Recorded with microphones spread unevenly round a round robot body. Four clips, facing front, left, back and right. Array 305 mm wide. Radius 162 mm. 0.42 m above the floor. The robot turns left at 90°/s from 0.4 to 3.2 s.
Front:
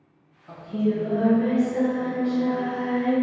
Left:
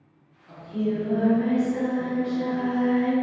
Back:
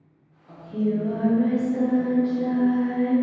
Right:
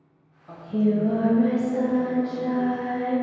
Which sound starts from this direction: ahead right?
Singing, at 0.5 s.